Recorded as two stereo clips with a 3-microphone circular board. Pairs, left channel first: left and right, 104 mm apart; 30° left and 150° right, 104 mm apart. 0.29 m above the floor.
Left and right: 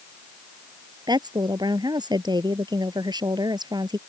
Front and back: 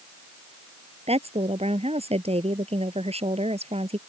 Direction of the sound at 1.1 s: 140° right.